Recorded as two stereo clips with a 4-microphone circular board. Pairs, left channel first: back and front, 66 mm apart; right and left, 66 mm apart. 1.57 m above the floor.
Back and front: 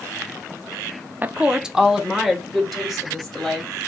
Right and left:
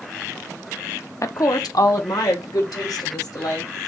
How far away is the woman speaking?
About 0.5 m.